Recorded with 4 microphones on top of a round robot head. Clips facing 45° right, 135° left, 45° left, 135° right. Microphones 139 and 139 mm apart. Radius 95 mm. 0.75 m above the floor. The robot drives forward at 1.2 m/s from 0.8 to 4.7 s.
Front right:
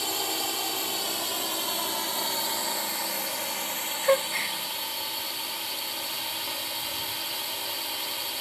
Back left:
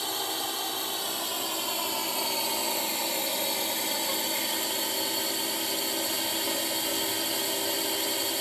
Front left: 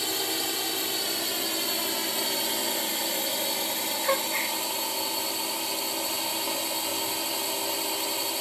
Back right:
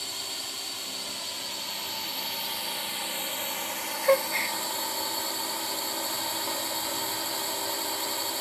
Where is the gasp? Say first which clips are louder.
Front right 9 dB, back right 6 dB; 75° right; by 4.6 s 80° right.